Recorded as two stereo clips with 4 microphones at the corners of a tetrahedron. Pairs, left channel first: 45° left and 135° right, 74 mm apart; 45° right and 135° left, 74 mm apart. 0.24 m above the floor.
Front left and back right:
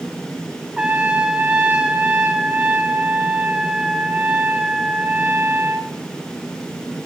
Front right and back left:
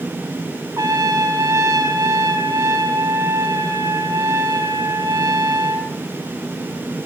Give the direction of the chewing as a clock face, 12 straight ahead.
I don't hear chewing.